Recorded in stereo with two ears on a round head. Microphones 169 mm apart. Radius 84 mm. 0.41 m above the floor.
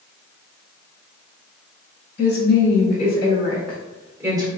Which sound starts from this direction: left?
A woman speaking, at 2.2 s.